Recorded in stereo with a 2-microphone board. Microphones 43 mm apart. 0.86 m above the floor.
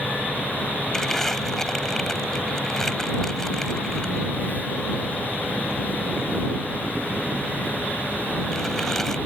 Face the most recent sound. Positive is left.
turn(degrees=10)  # may be behind; listen again after turning